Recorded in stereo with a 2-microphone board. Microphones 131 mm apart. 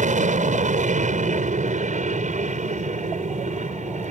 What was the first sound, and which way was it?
An aircraft, 70° right (ahead or behind).